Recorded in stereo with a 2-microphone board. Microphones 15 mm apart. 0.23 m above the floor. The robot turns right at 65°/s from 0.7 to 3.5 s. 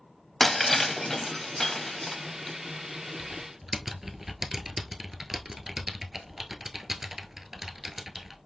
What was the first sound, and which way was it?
Breaking glass, 15° left (ahead or behind).